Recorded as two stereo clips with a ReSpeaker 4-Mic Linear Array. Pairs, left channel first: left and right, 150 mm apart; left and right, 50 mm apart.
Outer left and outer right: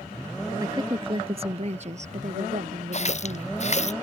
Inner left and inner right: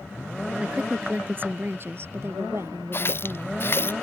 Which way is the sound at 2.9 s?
50° left (ahead or behind).